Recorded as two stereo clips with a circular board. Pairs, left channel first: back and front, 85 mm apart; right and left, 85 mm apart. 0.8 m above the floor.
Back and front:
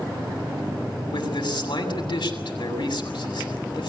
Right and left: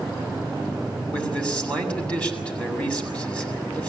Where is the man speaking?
165° right, 7 m.